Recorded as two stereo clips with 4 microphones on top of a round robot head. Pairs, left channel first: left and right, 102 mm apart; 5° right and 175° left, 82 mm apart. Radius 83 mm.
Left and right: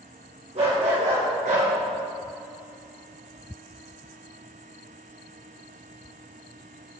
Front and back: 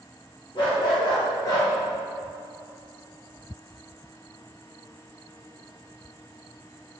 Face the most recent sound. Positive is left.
turn(degrees=-70)